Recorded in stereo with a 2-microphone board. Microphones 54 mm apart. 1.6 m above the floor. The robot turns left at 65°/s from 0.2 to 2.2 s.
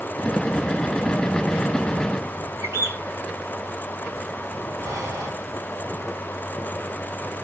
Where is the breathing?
80° right, 4 m.